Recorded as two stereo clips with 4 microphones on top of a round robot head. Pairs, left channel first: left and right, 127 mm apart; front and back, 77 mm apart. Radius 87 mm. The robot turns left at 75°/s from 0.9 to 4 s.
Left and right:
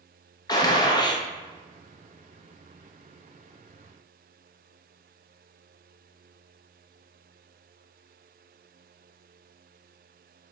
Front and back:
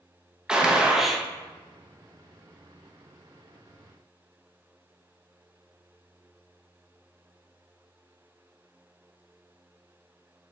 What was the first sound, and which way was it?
A gunshot, 110° left.